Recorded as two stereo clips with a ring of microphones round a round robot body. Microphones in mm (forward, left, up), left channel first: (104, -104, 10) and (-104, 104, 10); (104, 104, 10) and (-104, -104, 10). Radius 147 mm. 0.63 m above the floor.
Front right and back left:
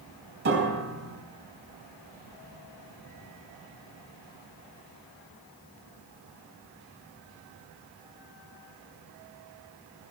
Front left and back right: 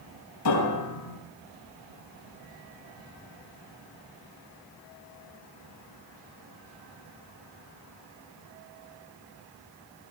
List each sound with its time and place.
0.5 s a piano: 80° left, 4 m